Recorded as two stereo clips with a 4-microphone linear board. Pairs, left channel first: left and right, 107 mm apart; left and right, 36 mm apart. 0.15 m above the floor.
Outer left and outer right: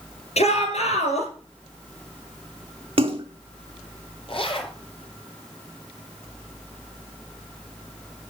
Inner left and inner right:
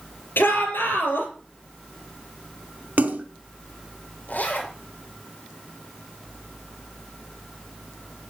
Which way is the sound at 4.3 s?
55° left (ahead or behind).